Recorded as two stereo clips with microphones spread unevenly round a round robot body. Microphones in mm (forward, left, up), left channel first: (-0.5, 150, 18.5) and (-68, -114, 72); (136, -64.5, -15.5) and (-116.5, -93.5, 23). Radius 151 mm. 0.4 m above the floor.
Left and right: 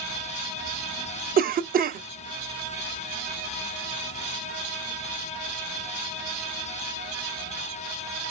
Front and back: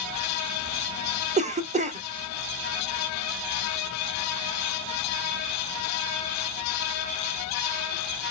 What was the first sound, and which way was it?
A cough, 135° right.